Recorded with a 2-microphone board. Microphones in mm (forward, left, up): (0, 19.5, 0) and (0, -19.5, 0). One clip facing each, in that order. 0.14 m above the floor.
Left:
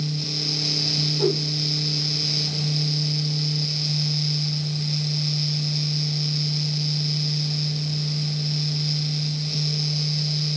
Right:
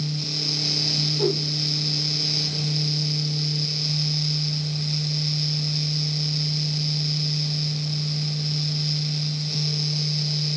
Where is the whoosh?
5° right (ahead or behind), 5.5 m.